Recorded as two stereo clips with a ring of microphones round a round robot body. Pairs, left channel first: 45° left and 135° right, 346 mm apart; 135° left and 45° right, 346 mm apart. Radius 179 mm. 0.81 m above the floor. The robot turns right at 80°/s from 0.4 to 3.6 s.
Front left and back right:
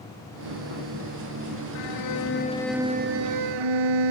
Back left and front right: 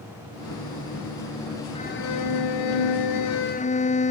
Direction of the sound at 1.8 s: 60° left.